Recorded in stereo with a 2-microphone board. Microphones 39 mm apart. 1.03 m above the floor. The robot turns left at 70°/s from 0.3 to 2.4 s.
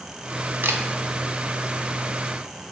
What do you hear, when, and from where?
0.6 s a camera shutter: 75° right (ahead or behind), 0.5 m; by 0.8 s 85° right, 0.5 m